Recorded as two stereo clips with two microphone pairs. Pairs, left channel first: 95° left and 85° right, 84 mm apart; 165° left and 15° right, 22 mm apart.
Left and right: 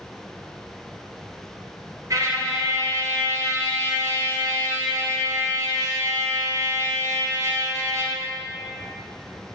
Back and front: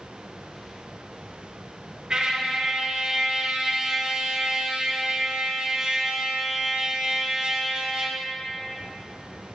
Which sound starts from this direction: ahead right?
A trumpet, at 2.1 s.